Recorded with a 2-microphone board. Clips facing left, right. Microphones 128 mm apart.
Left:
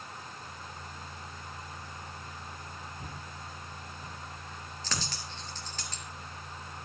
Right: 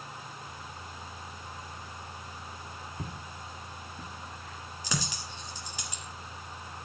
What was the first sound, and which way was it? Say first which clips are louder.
Footsteps: right 2 dB; 75° right (ahead or behind).